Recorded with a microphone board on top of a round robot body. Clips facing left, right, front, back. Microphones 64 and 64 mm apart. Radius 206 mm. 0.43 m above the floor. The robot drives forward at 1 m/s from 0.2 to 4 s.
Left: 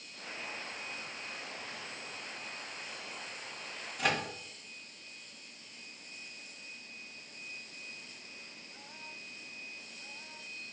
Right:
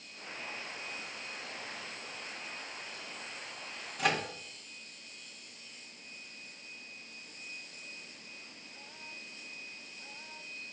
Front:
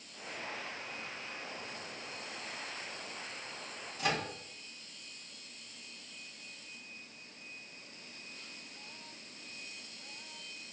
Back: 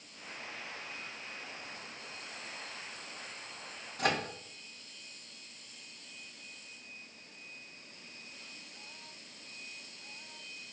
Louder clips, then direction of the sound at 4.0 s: Right 1 dB, back 2 dB; straight behind.